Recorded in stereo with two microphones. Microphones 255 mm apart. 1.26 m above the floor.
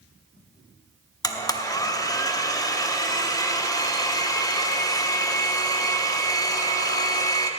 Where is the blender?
15° left (ahead or behind), 0.8 m.